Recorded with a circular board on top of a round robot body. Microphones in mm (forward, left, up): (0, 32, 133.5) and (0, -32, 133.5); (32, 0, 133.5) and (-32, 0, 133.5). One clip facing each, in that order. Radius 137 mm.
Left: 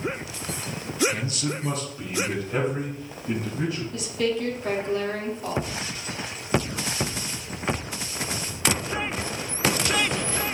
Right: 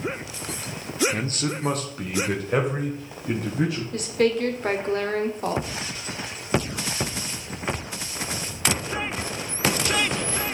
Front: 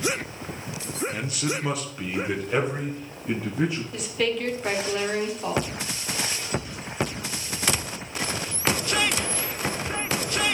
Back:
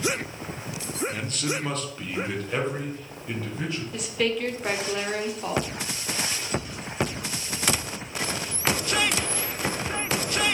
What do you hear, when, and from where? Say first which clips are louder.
1.1 s a man speaking: right 2 dB, front 1 dB; 85° right, 0.9 m; by 3.8 s 80° right, 2.5 m
3.9 s a woman speaking: right 6 dB, even; 90° right, 1.4 m